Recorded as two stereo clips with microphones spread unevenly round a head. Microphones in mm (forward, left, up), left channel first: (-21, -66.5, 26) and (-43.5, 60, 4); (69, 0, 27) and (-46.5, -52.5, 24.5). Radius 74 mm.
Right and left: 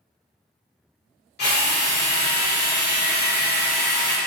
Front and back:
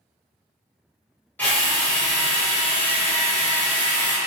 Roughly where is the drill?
Ahead right.